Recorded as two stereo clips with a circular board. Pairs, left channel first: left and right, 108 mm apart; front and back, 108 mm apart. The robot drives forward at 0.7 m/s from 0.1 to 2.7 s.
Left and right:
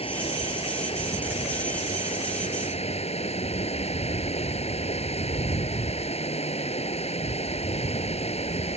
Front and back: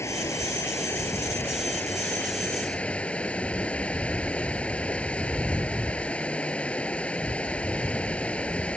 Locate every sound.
0.0 s running water: 65° left; by 8.8 s 80° left